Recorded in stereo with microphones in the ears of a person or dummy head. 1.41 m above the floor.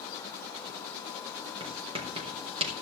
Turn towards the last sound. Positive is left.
turn(degrees=-30)  # may be behind; listen again after turning